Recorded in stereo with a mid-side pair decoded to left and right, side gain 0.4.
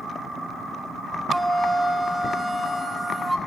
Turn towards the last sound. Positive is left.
turn(degrees=-5)